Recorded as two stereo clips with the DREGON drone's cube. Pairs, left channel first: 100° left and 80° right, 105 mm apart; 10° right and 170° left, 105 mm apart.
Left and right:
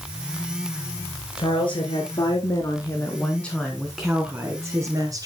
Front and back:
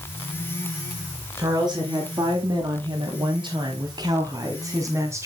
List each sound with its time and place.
1.4 s a woman speaking: 120° left, 3 m; by 5.3 s 125° right, 2.5 m